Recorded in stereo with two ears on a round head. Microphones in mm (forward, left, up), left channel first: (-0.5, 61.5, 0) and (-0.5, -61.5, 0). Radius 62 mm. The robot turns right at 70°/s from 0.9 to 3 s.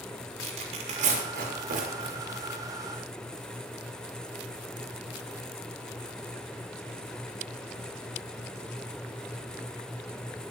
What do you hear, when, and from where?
0.4 s tearing paper: 55° right (ahead or behind), 7 m; by 2.2 s 35° right (ahead or behind), 7 m